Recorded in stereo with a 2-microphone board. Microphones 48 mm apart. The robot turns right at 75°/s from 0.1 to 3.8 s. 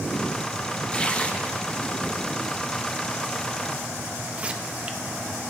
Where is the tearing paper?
20° left (ahead or behind), 0.7 m; by 5.0 s 25° right (ahead or behind), 0.7 m.